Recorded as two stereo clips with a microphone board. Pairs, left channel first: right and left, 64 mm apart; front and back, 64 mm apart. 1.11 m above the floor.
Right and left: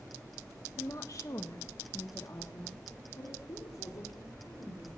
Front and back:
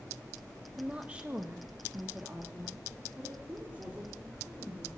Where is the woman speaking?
110° right, 1.2 m.